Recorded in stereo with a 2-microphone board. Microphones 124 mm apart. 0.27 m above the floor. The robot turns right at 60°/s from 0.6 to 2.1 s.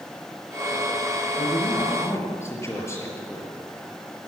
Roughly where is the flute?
I don't hear a flute.